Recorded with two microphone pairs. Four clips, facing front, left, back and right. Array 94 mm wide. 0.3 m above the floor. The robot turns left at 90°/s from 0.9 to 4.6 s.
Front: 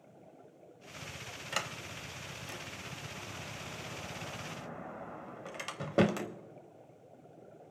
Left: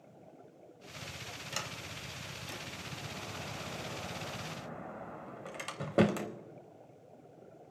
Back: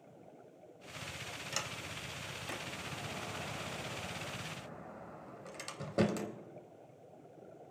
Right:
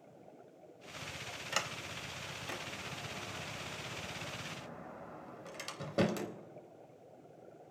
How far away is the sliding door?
About 0.7 m.